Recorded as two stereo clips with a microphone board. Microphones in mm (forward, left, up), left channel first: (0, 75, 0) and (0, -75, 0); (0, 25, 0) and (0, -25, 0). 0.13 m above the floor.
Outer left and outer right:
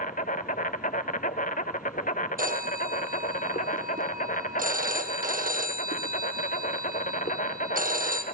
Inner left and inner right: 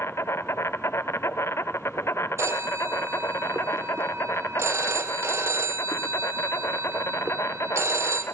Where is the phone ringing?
70° right (ahead or behind), 3.5 m.